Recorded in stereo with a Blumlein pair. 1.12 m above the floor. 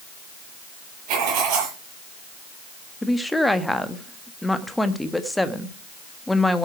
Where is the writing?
40° right, 9 m.